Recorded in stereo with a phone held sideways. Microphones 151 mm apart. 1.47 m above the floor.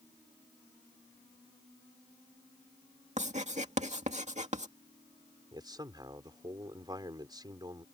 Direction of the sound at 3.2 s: 50° right (ahead or behind).